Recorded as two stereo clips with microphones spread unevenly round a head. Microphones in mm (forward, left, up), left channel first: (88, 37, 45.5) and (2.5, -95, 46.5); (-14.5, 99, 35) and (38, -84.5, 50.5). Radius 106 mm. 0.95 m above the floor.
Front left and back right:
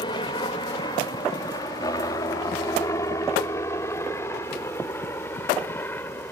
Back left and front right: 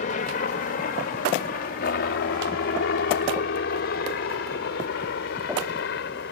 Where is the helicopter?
110° left; by 6.3 s 135° left.